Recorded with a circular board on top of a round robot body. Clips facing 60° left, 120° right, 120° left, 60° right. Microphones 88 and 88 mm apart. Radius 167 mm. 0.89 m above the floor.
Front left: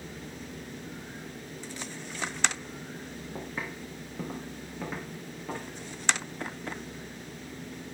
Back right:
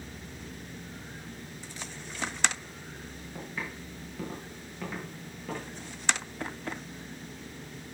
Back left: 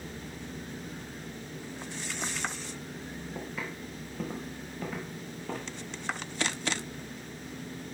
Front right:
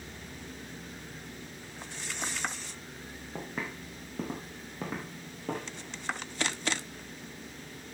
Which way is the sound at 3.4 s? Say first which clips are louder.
Front left 1 dB, front right 2 dB; 10° right.